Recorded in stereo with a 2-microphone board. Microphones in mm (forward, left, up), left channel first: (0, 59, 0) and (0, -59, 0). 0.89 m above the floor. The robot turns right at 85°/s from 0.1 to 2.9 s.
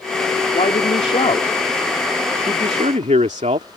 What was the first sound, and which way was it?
A man speaking, 60° left.